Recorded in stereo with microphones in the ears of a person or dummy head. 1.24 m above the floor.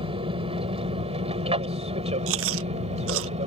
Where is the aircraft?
30° right (ahead or behind).